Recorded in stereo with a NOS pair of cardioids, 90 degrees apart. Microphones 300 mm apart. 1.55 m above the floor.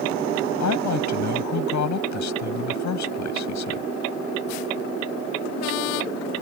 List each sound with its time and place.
0.6 s a woman speaking: 65° left